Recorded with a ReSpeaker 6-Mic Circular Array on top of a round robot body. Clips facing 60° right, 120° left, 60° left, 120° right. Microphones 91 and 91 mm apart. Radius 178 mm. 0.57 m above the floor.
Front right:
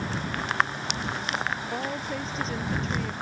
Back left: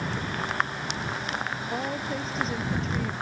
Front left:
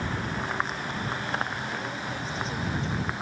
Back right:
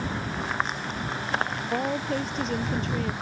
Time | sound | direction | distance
1.7 | a woman speaking | 155° right | ?